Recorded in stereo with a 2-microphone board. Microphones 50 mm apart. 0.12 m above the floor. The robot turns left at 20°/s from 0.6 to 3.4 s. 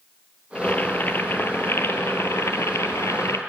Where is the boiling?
145° left, 0.8 m; by 3.4 s 90° left, 0.8 m.